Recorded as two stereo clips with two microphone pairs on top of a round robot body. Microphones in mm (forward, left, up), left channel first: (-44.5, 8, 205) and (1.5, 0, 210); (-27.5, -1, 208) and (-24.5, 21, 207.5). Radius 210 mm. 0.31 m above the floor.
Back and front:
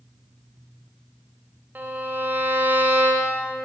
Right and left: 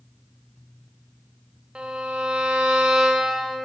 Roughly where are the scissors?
I don't hear scissors.